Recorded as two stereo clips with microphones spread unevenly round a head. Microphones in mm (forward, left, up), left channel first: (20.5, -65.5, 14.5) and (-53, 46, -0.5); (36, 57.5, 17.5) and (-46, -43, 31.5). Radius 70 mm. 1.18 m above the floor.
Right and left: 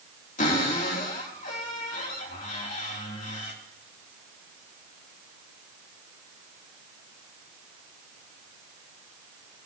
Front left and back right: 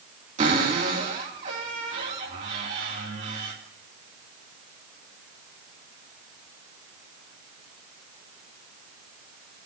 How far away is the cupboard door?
About 3 m.